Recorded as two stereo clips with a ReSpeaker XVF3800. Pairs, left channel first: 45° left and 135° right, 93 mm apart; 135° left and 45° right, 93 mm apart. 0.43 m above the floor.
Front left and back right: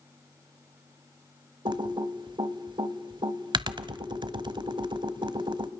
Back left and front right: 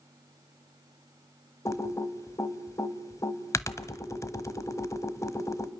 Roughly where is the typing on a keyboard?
Behind.